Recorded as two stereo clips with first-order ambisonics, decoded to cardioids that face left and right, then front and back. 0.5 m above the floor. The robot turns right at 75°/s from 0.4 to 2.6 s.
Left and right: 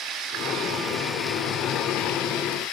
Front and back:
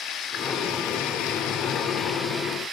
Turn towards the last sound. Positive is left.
turn(degrees=110)